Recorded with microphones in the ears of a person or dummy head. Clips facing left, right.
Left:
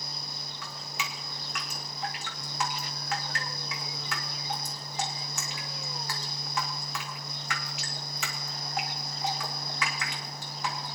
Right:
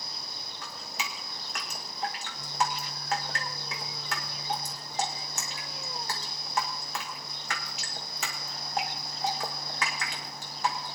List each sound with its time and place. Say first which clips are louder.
0.6 s dripping: even; 35° right (ahead or behind), 1.3 m